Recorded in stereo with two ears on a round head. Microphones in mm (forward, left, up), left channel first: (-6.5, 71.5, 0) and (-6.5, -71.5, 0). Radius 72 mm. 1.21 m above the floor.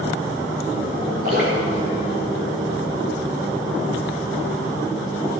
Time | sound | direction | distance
1.2 | dripping | 70° right (ahead or behind) | 5 m